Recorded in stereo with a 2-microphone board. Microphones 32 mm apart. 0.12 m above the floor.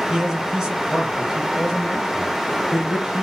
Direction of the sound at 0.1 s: 20° right (ahead or behind).